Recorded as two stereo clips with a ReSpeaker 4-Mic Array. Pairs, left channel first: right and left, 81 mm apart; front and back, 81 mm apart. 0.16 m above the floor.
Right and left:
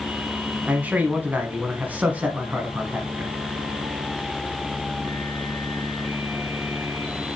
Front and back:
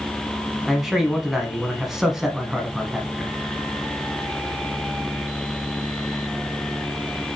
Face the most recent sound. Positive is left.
turn(degrees=105)